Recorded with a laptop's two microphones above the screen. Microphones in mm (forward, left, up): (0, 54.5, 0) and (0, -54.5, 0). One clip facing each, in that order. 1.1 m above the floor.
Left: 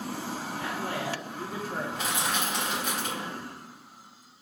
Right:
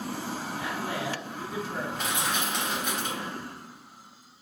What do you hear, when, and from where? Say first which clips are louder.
0.6 s a man speaking: even; 45° left (ahead or behind), 0.6 m
1.9 s crushing: even; 5° left (ahead or behind), 1.1 m